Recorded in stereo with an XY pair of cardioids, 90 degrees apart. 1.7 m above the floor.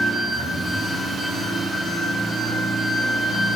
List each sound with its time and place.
0.0 s an engine running: 40° right, 2.5 m